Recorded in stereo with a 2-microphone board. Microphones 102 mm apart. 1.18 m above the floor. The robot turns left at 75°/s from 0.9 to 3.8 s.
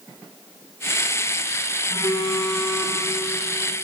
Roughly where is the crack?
No crack in this recording.